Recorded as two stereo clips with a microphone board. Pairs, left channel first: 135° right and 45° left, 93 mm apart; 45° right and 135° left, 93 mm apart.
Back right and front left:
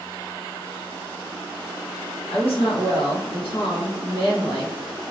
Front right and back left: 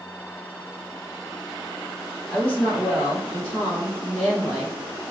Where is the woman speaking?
120° right, 1.3 m.